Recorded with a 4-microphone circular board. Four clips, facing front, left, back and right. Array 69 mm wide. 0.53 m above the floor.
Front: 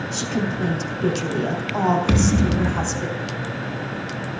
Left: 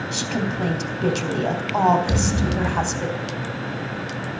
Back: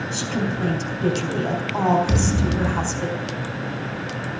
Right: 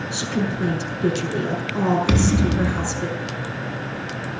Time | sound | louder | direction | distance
0.1 | a woman speaking | right 2 dB, front 1 dB | 90° left | 3.5 m
2.1 | a thud | right 3 dB, front 3 dB | 50° right | 1.4 m